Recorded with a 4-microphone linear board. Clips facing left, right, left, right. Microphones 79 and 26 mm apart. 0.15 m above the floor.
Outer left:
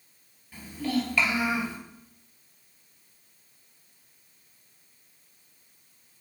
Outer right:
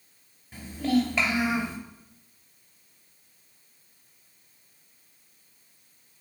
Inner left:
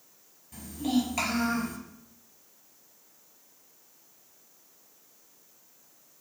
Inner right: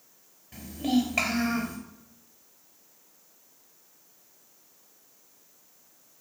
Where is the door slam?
I don't hear a door slam.